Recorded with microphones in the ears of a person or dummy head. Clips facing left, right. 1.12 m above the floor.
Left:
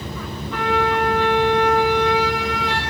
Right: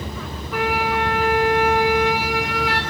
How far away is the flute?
About 1.2 m.